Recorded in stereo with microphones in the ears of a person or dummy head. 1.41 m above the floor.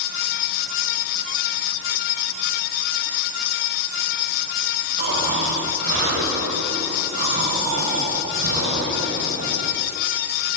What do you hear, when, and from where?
5.0 s snoring: 85° right, 6 m